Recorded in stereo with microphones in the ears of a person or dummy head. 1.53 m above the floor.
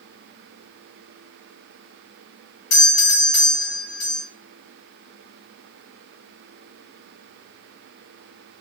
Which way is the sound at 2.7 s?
75° left (ahead or behind).